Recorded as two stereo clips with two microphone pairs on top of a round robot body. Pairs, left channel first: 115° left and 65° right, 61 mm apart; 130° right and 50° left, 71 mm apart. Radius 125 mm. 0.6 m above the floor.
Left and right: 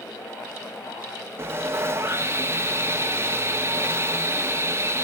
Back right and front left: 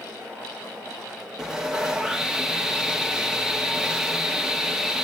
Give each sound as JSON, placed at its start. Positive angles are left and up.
{"t": 1.4, "sound": "sawing", "azimuth_deg": -25, "distance_m": 1.3}